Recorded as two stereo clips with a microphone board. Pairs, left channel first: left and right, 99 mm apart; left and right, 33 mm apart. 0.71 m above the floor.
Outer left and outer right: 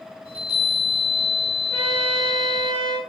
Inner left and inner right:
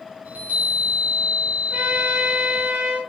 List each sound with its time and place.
0.2 s a chime: 75° right (ahead or behind), 8.5 m
1.7 s a trumpet: 80° right, 8.5 m